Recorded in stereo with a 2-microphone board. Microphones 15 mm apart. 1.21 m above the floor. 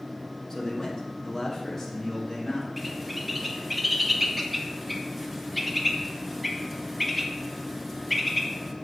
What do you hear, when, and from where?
0.5 s a man speaking: 45° left (ahead or behind), 2 m; by 2.7 s 30° left (ahead or behind), 3.5 m
2.8 s a bird: centre (ahead or behind), 1.0 m